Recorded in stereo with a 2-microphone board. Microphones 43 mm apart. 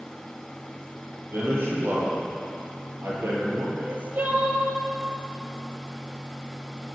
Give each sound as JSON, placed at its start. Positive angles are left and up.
{"t": 1.3, "sound": "a man speaking", "side_deg": -60, "distance_m": 6.5}
{"t": 3.8, "sound": "crying", "side_deg": -40, "distance_m": 2.0}